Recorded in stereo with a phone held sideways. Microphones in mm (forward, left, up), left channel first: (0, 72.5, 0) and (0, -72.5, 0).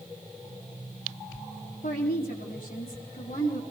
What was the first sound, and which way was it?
A woman speaking, 85° left.